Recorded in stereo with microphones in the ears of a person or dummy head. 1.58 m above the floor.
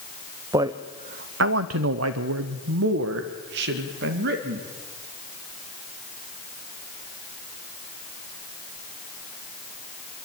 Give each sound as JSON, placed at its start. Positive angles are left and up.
{"t": 0.5, "sound": "a man speaking", "side_deg": -20, "distance_m": 0.9}